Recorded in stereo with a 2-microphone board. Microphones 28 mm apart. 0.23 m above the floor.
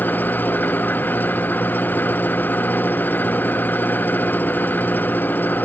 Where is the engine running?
80° left.